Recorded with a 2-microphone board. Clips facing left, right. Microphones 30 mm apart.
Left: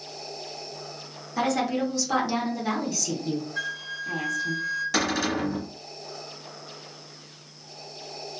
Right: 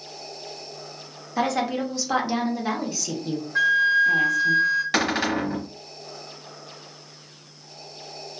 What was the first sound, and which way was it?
A woman speaking, 15° right (ahead or behind).